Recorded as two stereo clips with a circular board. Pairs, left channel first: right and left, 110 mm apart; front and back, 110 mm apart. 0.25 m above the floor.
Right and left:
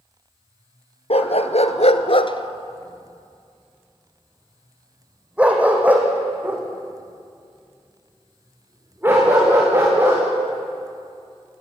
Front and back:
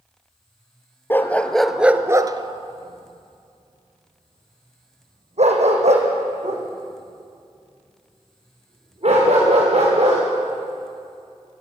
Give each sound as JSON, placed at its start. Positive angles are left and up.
{"t": 1.1, "sound": "a dog barking", "azimuth_deg": -70, "distance_m": 1.6}